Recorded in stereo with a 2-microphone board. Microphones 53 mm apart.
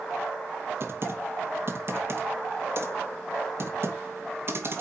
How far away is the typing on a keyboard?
About 2 m.